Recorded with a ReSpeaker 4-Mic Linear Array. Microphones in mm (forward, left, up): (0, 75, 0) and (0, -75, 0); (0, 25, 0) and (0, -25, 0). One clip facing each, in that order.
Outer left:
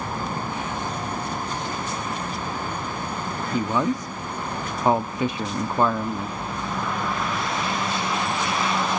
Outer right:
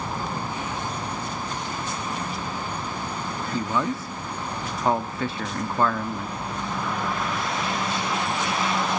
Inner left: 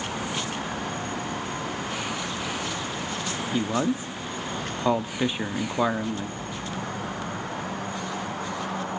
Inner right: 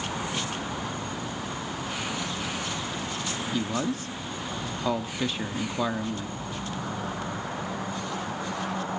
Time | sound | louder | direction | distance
3.5 | a man speaking | outer left 3 dB, inner left 4 dB | 20° left (ahead or behind) | 1.0 m